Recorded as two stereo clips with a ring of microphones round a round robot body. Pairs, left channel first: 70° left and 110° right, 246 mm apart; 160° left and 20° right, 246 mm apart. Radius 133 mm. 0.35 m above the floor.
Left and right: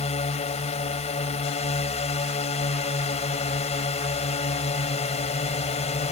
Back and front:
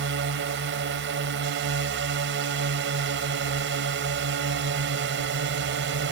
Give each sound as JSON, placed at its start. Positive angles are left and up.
{"t": 0.0, "sound": "a drone", "azimuth_deg": 10}